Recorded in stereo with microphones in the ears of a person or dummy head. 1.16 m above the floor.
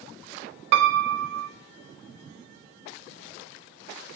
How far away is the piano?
About 0.5 m.